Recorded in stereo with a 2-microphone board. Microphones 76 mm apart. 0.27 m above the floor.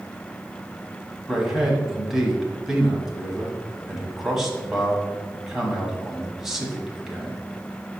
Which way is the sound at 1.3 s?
5° right (ahead or behind).